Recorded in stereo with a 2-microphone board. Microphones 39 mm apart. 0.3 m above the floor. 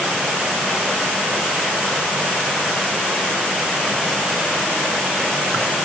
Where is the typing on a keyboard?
I don't hear typing on a keyboard.